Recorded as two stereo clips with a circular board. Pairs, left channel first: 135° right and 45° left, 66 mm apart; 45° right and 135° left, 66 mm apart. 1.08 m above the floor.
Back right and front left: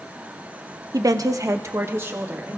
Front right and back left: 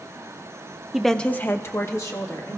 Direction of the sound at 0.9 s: 55° left.